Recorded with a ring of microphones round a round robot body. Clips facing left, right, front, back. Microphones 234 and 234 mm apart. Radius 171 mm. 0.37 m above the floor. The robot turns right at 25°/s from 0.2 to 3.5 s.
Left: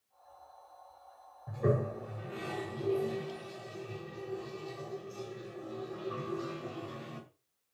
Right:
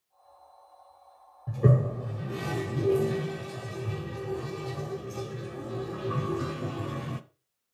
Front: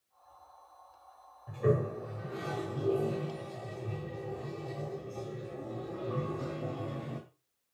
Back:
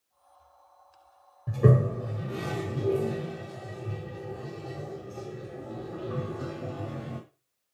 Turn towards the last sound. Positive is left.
turn(degrees=-95)